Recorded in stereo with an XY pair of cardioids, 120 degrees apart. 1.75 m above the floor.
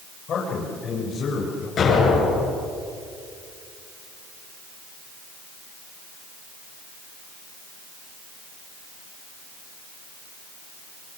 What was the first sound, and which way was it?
A man speaking, 60° left.